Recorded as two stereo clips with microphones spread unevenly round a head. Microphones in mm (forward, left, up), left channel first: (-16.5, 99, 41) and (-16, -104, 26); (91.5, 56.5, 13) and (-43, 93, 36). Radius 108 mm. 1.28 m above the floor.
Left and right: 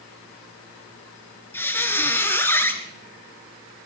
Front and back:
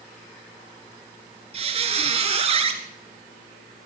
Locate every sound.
1.5 s a squeak: 165° left, 1.8 m